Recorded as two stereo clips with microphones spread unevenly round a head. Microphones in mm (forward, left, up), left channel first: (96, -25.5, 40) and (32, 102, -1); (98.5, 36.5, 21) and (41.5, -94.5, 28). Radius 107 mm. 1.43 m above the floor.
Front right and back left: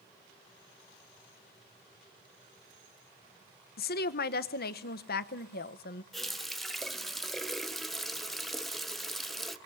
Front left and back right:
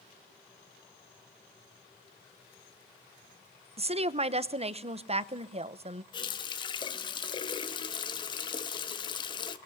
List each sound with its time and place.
3.8 s a woman speaking: 65° right, 1.0 m
6.1 s a running tap: 15° left, 1.1 m